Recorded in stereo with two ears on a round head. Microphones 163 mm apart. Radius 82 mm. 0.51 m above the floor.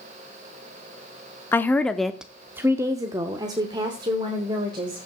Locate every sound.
1.5 s a woman speaking: 10° left (ahead or behind), 0.8 m; by 5.0 s 25° right (ahead or behind), 2 m